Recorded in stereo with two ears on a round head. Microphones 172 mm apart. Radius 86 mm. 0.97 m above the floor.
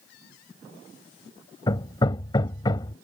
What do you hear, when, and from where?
1.7 s hammering: 25° left (ahead or behind)